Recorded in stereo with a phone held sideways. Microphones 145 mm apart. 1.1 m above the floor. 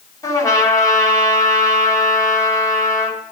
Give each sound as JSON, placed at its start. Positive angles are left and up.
{"t": 0.2, "sound": "a trumpet", "side_deg": 20, "distance_m": 2.5}